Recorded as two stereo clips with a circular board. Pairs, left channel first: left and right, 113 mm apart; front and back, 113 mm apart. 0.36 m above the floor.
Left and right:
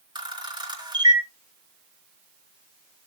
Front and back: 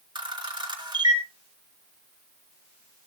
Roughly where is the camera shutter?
Behind right.